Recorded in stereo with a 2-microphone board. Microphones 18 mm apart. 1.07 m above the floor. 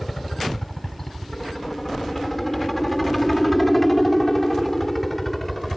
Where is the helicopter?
15° left (ahead or behind); by 5.8 s 10° left (ahead or behind).